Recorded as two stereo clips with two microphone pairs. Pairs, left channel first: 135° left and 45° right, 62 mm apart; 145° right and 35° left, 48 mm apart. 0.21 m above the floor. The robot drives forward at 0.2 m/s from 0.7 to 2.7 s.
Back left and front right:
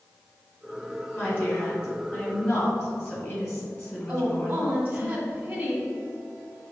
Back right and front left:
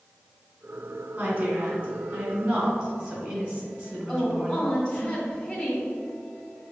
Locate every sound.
1.2 s a woman speaking: 90° left, 1.7 m; by 5.1 s 100° left, 1.7 m
4.1 s a woman speaking: 100° right, 1.4 m